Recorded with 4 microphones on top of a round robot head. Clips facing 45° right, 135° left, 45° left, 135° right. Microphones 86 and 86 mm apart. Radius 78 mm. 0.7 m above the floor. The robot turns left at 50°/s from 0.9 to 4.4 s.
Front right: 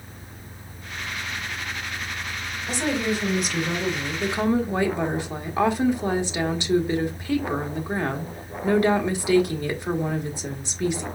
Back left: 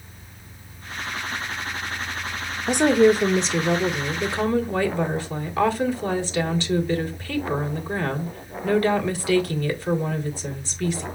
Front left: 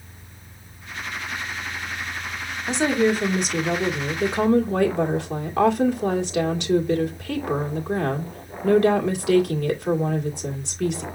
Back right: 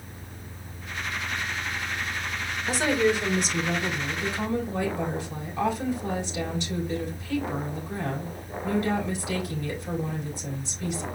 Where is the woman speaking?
115° left, 1.8 m; by 11.1 s 30° left, 1.8 m.